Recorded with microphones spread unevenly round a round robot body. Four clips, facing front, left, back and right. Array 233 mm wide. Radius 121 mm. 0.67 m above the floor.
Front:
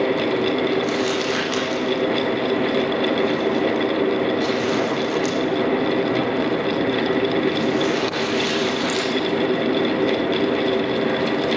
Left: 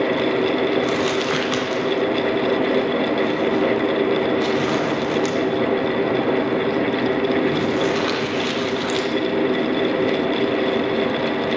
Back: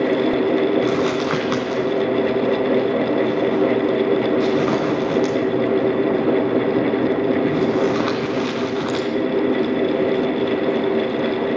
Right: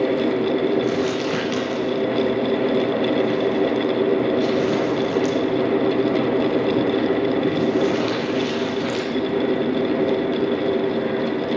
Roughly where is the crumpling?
Behind.